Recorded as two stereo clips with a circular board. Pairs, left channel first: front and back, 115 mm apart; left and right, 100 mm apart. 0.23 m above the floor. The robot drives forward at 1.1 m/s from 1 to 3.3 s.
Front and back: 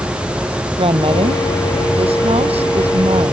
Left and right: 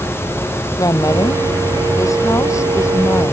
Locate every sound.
0.8 s a woman speaking: 145° left; by 3.3 s 150° left